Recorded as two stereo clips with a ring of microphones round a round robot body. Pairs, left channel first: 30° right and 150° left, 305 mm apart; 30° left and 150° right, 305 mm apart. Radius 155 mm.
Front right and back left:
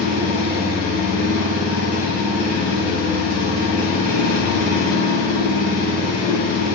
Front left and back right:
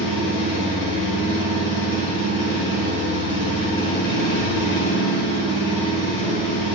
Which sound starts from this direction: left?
An engine running, at 0.0 s.